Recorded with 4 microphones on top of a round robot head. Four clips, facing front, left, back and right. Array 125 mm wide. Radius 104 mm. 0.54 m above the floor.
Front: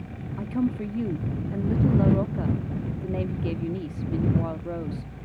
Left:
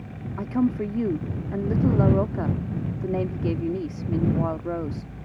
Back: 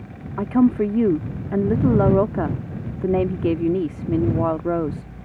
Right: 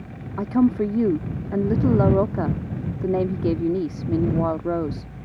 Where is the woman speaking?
155° right.